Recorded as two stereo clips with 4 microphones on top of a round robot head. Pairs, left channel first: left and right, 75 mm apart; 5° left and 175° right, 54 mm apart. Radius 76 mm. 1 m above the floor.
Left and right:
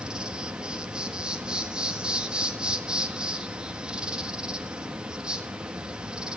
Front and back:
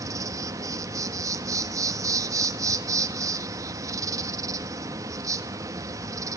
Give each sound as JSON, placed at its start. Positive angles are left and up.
{"t": 0.0, "sound": "an insect", "azimuth_deg": -170, "distance_m": 1.7}